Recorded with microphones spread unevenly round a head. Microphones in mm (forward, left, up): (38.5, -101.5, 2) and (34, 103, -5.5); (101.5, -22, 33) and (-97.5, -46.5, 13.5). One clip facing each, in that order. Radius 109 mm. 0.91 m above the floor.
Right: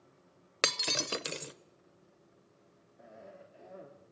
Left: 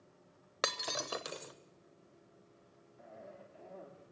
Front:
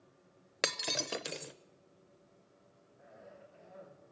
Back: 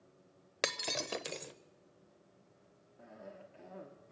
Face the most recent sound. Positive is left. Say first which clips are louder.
# right 1 dB, back 4 dB
turn(degrees=-170)